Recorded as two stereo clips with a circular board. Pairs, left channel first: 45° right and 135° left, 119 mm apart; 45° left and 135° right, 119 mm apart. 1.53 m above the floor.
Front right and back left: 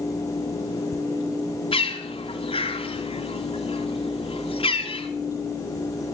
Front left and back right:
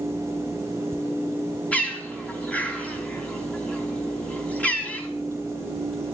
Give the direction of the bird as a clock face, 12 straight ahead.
1 o'clock.